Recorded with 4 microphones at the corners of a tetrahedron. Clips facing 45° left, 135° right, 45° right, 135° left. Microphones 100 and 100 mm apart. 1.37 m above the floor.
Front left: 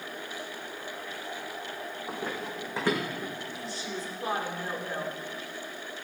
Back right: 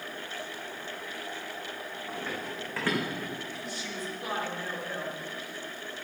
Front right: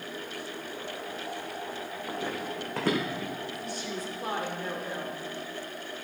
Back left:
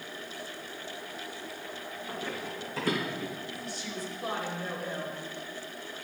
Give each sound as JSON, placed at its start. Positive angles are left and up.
{"t": 2.1, "sound": "running footsteps", "azimuth_deg": -10, "distance_m": 3.5}
{"t": 3.5, "sound": "a woman speaking", "azimuth_deg": -10, "distance_m": 3.5}